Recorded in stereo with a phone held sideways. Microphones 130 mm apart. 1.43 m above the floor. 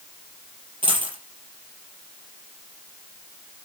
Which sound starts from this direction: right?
A dropped coin, at 0.8 s.